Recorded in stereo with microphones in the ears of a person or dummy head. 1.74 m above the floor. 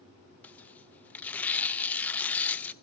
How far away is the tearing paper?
About 0.6 m.